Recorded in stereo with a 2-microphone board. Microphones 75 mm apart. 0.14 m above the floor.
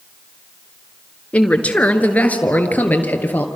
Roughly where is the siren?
No siren in this recording.